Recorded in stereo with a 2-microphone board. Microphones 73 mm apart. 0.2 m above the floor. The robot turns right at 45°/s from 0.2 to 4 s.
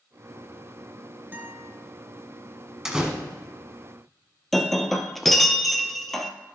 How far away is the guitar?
About 1.0 m.